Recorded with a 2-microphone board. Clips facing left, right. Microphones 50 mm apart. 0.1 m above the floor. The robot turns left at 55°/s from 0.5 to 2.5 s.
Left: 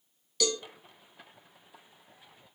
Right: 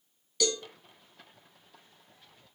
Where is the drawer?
I don't hear a drawer.